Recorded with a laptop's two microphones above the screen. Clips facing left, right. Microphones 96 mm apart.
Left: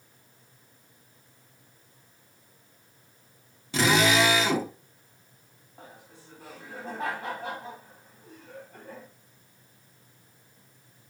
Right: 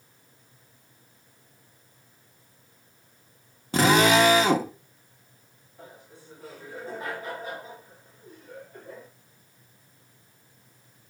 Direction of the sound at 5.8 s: 75° left (ahead or behind).